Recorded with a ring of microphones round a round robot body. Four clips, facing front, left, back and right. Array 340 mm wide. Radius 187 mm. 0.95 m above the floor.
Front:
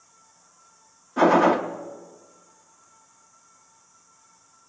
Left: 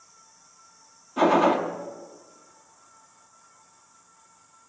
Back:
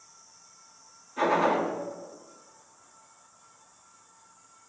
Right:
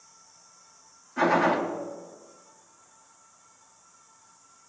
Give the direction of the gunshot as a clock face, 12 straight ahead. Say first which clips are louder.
Left 3 dB, front 7 dB; 11 o'clock.